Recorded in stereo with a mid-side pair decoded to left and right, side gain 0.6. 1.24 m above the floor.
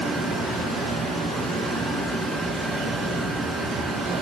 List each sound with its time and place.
0.0 s running water: 40° right, 7 m